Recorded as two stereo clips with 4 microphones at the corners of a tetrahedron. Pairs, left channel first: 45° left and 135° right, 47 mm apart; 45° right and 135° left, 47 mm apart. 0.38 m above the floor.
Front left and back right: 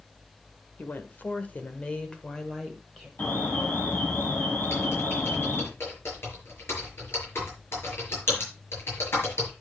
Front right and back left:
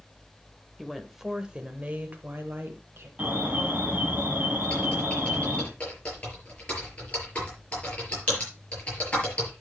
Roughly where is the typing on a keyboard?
Ahead.